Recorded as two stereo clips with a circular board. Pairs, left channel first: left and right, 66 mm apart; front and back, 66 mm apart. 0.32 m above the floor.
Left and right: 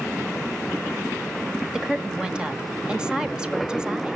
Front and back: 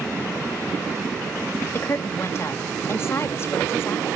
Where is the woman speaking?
20° right, 1.3 m.